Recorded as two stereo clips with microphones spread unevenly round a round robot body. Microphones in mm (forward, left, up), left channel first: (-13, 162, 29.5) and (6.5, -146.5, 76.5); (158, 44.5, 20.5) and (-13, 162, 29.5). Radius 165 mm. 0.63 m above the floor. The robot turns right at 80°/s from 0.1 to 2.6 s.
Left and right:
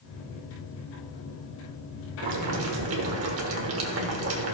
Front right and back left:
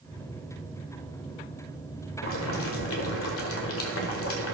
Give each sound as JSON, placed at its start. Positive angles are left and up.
{"t": 2.2, "sound": "boiling", "azimuth_deg": -70, "distance_m": 1.4}